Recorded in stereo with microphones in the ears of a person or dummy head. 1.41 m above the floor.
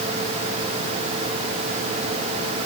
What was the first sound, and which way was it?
Only background noise.